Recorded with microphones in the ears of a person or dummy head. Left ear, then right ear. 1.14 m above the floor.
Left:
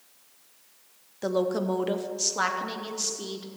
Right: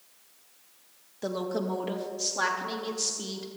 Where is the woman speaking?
10° left (ahead or behind), 0.6 m; by 3.5 s 15° left (ahead or behind), 1.1 m.